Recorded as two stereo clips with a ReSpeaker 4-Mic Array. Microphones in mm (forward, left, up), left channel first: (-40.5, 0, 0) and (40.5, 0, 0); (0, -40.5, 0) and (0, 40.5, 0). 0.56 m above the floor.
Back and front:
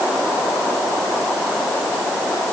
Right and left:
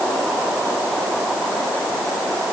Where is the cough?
I don't hear a cough.